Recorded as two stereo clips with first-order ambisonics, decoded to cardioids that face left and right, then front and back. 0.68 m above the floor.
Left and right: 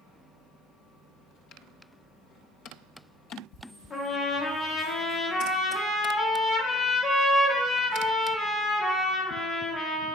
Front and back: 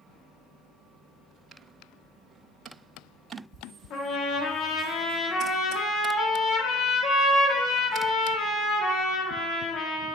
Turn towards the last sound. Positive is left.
turn(degrees=25)